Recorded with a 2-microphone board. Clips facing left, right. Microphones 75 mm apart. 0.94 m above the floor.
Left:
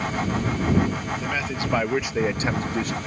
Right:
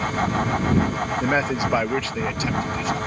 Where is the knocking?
I don't hear knocking.